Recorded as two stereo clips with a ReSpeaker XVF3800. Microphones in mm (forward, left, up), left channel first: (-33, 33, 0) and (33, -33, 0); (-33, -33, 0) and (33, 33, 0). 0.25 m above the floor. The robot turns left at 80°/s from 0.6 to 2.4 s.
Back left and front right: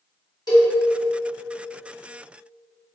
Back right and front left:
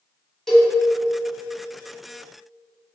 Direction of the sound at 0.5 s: 140° left.